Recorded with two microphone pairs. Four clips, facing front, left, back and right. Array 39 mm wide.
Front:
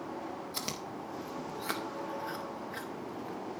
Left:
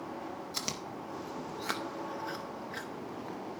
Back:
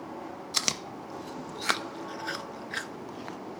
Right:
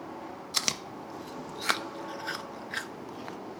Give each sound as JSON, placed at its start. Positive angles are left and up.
{"t": 0.5, "sound": "chewing", "azimuth_deg": -140, "distance_m": 0.6}